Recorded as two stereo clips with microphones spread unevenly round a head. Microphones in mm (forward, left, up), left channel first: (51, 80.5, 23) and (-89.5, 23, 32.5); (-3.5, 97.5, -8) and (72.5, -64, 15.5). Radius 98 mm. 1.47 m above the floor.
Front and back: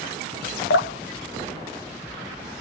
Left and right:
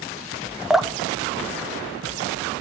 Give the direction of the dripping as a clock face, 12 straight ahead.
11 o'clock.